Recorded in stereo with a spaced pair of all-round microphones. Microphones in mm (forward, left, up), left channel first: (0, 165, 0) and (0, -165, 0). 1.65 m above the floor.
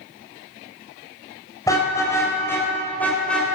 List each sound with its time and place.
1.7 s a car horn: 10° left (ahead or behind), 4.5 m; by 3.5 s centre (ahead or behind), 3.5 m